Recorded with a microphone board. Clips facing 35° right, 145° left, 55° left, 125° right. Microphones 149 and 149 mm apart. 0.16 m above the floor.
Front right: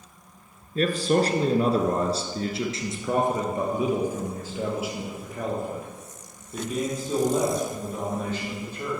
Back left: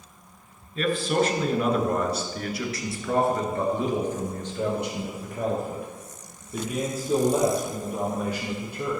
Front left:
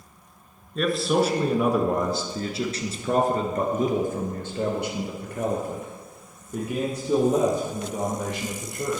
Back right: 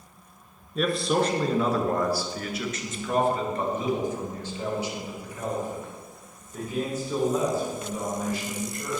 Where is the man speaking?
40° right, 1.6 m; by 9.0 s 70° left, 4 m.